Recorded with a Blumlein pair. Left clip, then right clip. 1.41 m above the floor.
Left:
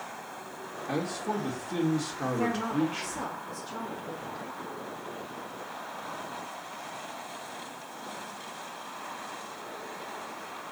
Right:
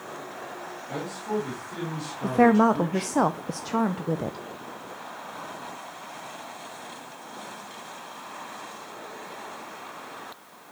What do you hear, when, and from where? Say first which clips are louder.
0.9 s a man speaking: even; 25° left, 4 m
2.2 s a woman speaking: right 13 dB; 40° right, 0.5 m